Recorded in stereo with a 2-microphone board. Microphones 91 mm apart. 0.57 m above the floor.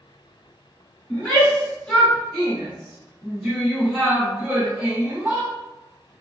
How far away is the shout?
About 1.5 m.